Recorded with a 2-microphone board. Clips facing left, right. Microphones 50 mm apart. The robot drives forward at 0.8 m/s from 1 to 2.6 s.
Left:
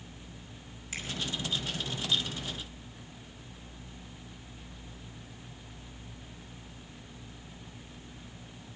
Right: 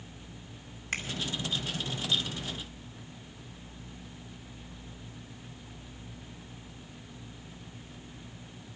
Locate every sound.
0.9 s a finger snap: 55° right (ahead or behind), 2 m